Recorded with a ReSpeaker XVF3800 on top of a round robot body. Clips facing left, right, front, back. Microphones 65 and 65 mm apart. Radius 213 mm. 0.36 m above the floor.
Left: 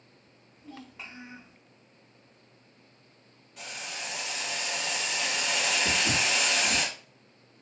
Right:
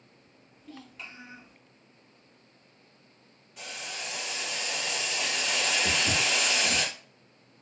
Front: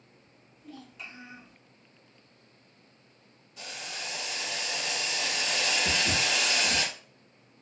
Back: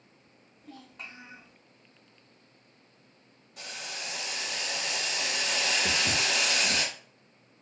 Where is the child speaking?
150° left, 1.7 m.